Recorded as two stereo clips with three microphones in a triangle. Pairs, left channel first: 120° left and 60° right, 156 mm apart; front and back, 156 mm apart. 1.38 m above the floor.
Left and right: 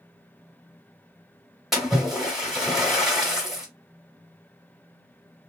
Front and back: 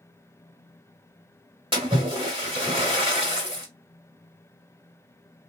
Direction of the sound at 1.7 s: 150° right.